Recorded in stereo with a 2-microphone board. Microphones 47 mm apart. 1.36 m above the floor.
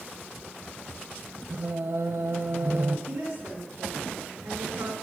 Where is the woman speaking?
85° right, 5 m.